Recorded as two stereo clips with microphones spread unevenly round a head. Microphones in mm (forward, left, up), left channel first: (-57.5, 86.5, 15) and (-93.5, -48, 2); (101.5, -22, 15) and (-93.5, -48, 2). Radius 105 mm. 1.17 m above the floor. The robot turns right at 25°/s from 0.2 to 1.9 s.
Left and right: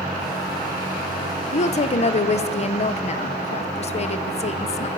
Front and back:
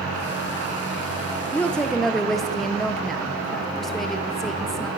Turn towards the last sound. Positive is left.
turn(degrees=100)